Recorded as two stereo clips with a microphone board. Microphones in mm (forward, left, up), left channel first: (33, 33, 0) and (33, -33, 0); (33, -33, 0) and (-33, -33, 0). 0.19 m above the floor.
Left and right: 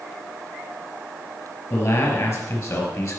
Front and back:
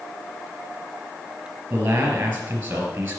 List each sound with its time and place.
1.7 s a man speaking: 120° left, 4 m